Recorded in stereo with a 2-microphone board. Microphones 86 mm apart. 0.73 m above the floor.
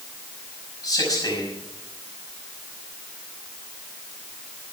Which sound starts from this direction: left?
A man speaking, at 0.8 s.